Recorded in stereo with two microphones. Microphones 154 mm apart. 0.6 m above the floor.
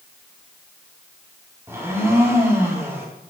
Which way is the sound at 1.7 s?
15° right (ahead or behind).